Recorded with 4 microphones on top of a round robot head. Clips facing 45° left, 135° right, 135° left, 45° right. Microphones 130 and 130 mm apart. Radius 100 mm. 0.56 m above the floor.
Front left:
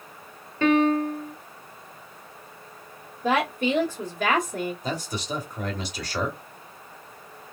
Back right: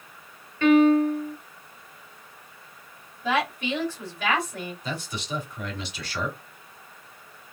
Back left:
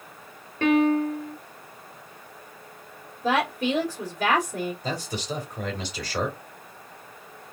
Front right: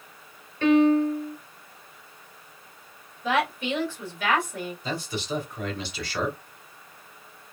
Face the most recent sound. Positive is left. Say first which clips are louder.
# front left 3 dB, even
turn(degrees=90)